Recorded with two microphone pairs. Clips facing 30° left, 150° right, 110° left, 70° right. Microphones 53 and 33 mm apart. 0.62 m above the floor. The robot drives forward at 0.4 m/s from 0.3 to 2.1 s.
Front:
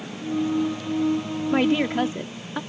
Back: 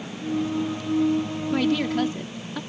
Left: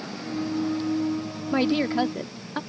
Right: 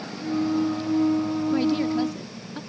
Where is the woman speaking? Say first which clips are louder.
Front 2 dB, left 2 dB; 80° left; by 2.6 s 90° left.